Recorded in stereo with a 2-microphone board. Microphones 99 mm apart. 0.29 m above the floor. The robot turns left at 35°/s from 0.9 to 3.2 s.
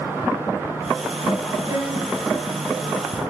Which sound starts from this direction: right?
A violin, at 1.7 s.